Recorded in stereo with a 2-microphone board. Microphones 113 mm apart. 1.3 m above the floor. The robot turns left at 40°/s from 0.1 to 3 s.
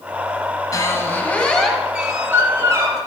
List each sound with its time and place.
0.7 s a squeak: 45° left, 1.5 m; by 3.0 s 50° right, 1.5 m